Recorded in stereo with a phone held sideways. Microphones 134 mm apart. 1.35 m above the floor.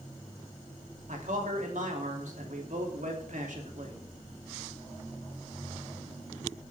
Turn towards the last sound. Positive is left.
turn(degrees=-70)  # may be behind; listen again after turning